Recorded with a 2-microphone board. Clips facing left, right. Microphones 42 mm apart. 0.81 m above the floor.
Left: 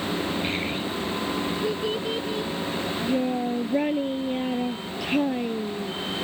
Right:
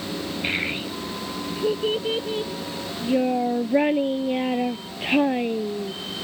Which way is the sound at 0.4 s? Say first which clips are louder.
Right 1 dB; 25° right (ahead or behind).